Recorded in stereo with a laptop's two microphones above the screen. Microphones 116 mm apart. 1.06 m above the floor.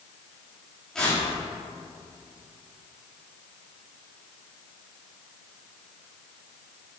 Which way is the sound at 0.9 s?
5° left (ahead or behind).